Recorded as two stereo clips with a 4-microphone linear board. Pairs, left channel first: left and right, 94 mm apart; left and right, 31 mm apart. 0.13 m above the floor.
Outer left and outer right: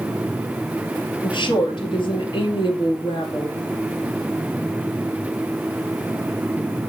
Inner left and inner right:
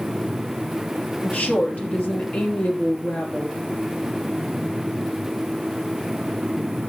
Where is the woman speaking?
60° left (ahead or behind), 3 m.